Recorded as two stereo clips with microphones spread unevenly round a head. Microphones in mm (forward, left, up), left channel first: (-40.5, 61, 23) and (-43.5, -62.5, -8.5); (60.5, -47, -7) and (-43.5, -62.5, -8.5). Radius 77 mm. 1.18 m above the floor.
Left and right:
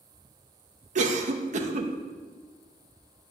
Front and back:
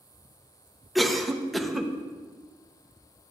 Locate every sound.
0.9 s a cough: 80° right, 0.8 m